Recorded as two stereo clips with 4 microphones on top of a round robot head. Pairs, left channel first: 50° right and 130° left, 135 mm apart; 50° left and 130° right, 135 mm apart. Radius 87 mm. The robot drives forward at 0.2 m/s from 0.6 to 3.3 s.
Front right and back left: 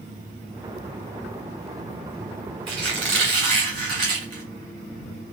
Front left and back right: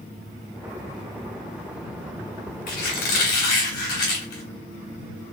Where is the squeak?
70° left, 3 m; by 4.4 s 75° left, 3 m.